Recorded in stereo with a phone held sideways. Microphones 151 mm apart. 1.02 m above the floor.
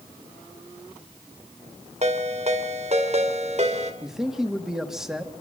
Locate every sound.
2.0 s a ringtone: 50° right (ahead or behind), 2.5 m
4.0 s a man speaking: 5° right (ahead or behind), 1.7 m